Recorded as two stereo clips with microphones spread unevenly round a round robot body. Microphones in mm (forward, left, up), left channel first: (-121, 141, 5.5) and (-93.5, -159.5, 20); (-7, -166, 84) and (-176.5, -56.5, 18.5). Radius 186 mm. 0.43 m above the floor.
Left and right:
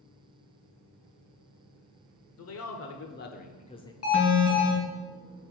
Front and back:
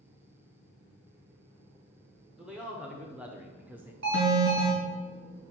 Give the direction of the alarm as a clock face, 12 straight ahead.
7 o'clock.